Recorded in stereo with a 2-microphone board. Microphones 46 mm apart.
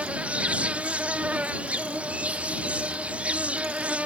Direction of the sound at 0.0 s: 30° right (ahead or behind).